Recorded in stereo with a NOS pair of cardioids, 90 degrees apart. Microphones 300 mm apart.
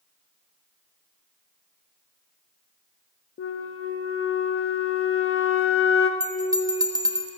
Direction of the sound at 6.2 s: 15° right.